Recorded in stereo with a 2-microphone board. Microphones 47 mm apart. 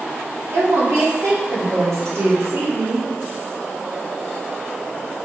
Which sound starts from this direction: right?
A woman speaking, at 0.5 s.